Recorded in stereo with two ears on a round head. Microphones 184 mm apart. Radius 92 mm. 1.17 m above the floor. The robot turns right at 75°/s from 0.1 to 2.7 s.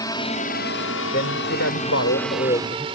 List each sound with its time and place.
0.0 s a drone: 20° left (ahead or behind); by 3.0 s 25° right (ahead or behind)
1.1 s a man speaking: 45° left; by 2.9 s 165° left